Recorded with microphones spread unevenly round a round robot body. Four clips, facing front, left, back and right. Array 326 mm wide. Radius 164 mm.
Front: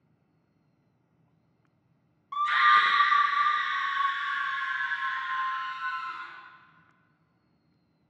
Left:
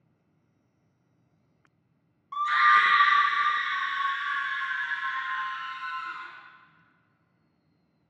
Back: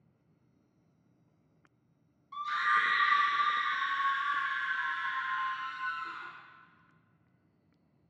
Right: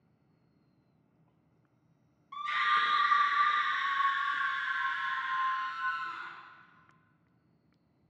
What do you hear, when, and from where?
2.3 s a scream: 30° left, 0.6 m; by 6.3 s 175° right, 2 m